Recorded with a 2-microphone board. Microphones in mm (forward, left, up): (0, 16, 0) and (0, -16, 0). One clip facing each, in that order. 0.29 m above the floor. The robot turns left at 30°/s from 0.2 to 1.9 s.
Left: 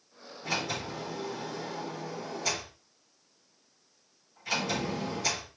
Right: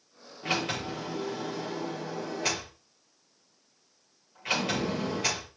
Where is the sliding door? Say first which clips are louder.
Right 3 dB; 65° right, 8 m; by 5.5 s 110° right, 8 m.